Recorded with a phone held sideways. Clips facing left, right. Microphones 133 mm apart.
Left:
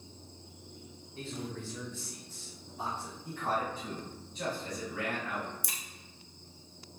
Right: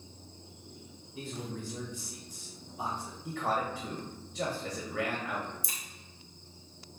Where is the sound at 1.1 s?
15° right (ahead or behind), 1.5 m.